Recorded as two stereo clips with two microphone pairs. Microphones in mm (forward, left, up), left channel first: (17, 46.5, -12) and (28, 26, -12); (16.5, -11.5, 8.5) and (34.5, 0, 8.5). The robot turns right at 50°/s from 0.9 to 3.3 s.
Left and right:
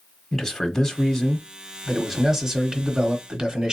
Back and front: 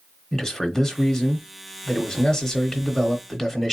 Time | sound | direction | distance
0.3 | a man speaking | 175° left | 0.9 m